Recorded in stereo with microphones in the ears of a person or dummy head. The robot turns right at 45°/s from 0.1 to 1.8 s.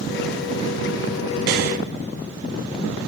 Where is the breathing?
55° right (ahead or behind), 0.7 m; by 1.8 s 45° right (ahead or behind), 0.7 m.